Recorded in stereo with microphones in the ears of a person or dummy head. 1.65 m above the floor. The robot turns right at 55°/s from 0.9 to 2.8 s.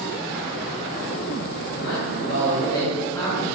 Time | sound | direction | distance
1.7 | a man speaking | 105° left | 2.5 m